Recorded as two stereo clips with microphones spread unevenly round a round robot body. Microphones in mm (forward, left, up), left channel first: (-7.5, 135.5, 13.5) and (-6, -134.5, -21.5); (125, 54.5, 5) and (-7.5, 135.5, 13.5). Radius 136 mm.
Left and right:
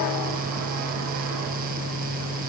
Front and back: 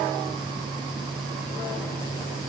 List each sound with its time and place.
Only background noise.